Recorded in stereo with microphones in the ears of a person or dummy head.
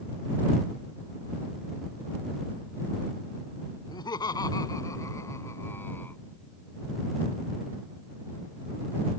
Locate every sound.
3.9 s laughter: 25° left (ahead or behind); by 6.2 s 10° left (ahead or behind)